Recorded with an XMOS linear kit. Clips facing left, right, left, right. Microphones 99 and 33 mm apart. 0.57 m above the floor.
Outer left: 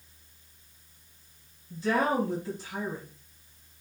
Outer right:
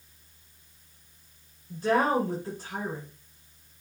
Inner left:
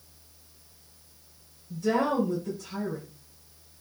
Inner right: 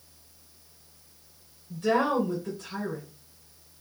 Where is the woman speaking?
50° right (ahead or behind), 2.5 m.